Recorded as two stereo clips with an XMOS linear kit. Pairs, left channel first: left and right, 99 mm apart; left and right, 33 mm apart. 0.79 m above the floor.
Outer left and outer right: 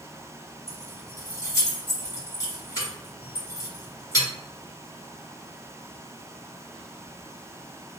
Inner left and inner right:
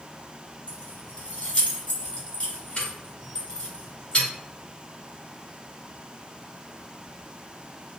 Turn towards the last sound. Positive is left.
turn(degrees=35)  # may be behind; listen again after turning